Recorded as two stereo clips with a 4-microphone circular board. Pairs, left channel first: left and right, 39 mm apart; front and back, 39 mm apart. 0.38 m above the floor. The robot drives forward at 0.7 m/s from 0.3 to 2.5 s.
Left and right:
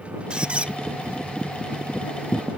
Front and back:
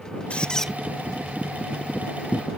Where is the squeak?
35° right; by 0.7 s 85° right.